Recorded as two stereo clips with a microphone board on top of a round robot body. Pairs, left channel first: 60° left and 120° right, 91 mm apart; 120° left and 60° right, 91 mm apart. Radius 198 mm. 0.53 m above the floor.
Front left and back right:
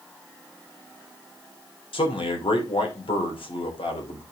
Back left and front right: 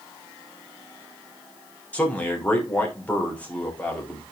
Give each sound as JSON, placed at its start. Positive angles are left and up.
{"t": 1.9, "sound": "a man speaking", "azimuth_deg": 45, "distance_m": 3.0}